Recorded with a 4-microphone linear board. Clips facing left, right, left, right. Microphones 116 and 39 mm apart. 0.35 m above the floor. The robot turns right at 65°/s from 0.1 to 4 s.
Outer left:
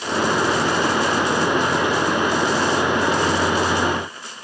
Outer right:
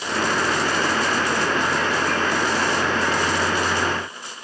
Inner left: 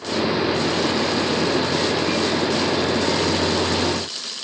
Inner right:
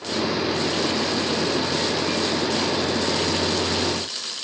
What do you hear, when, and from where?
Only background noise.